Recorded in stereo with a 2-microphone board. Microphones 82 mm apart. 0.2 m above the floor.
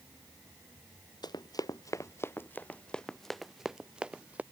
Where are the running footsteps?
60° left (ahead or behind); by 4.4 s 15° right (ahead or behind).